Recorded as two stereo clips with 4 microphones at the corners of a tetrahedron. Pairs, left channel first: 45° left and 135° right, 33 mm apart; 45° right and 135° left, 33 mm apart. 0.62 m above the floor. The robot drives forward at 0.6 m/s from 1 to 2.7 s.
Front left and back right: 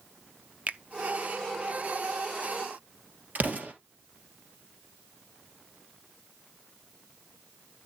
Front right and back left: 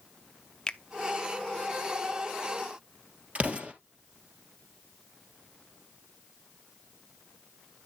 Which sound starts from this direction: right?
A finger snap, at 0.7 s.